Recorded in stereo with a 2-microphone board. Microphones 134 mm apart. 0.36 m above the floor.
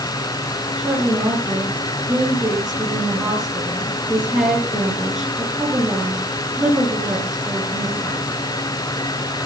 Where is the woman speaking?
Centre (ahead or behind), 4.5 m.